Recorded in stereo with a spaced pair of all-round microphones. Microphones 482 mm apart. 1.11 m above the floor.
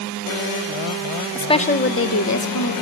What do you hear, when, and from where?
1.4 s a woman speaking: 5° left (ahead or behind), 0.6 m; by 2.7 s 45° left (ahead or behind), 1.0 m